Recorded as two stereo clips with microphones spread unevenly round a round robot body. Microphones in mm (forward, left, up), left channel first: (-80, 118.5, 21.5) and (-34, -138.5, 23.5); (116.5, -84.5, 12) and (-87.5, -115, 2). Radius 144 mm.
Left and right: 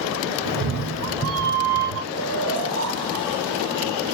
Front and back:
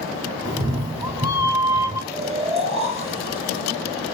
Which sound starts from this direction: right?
A cat meowing, at 0.5 s.